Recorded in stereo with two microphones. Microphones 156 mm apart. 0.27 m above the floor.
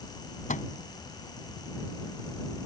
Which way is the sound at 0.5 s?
55° left (ahead or behind).